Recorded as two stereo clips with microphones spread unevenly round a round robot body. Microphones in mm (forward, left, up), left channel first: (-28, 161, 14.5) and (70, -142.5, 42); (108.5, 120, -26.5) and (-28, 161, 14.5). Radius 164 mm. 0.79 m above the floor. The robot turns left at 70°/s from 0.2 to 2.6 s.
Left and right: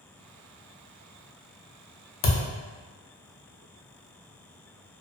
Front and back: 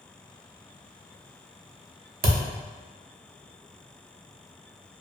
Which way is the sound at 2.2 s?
145° left.